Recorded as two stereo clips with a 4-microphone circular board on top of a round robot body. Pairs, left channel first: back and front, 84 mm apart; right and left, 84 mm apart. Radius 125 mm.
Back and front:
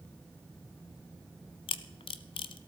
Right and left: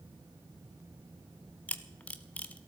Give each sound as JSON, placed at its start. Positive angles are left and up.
{"t": 1.7, "sound": "a camera shutter", "azimuth_deg": -165, "distance_m": 0.5}